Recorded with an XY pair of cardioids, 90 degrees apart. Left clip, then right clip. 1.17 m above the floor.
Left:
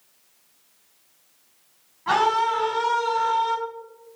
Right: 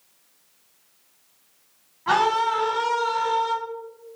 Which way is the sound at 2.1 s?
15° right.